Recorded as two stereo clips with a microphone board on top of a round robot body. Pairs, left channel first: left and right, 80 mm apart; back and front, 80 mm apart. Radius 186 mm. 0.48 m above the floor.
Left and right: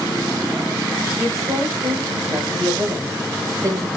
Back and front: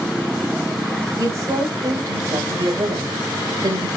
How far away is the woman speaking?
About 6 m.